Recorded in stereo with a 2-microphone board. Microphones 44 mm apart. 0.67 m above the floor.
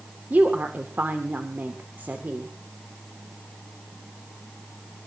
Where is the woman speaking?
45° right (ahead or behind), 2 m.